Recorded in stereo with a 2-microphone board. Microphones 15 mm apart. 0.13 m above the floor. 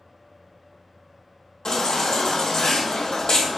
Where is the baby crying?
60° left (ahead or behind), 2 m.